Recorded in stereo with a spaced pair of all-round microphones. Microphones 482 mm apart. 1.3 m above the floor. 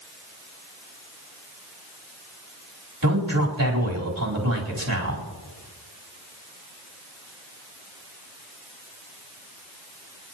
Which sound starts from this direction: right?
A man speaking, at 3.0 s.